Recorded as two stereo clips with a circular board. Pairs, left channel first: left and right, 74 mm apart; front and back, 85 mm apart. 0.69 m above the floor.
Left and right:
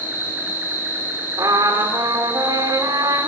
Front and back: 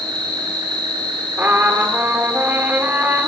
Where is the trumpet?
115° right, 1.6 m.